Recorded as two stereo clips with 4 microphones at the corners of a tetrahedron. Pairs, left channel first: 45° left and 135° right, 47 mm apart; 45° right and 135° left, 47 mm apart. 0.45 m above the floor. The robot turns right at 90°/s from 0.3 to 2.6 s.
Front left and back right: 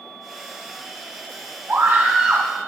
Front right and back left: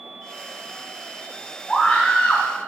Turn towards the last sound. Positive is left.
turn(degrees=-35)